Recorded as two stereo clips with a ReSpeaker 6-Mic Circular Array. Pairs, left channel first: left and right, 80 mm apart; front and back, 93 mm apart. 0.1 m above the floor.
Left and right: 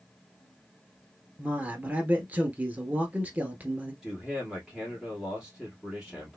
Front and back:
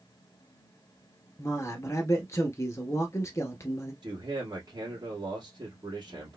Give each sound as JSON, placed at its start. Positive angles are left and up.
{"t": 1.4, "sound": "a man speaking", "azimuth_deg": -35, "distance_m": 1.4}
{"t": 4.0, "sound": "a man speaking", "azimuth_deg": -175, "distance_m": 2.5}